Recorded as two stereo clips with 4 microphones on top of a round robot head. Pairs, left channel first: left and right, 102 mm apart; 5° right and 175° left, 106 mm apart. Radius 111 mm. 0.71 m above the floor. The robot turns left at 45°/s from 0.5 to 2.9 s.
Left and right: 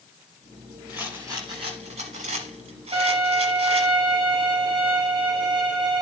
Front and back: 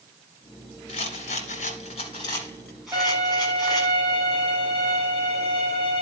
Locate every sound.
0.9 s a rattle: 5° right, 1.0 m; by 3.9 s 95° right, 1.0 m
2.9 s a violin: 120° right, 6 m